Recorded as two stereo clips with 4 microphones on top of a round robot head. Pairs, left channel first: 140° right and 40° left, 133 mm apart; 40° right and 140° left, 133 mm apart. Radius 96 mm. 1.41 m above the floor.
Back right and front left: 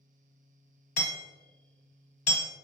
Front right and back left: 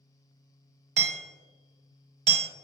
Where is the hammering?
175° right, 1.2 m.